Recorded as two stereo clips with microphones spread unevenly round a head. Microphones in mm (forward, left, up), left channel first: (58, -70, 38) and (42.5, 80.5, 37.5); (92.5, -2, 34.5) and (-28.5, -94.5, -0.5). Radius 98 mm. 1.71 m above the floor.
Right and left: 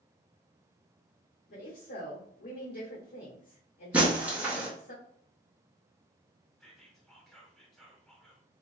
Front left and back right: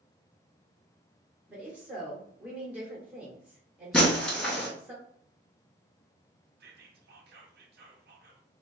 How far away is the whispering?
About 0.7 m.